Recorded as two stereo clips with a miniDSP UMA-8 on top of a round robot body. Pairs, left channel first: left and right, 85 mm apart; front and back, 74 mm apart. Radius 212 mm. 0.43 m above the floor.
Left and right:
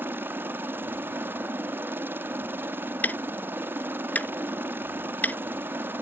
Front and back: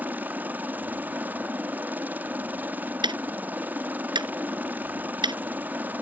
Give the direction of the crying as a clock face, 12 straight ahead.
No crying in this recording.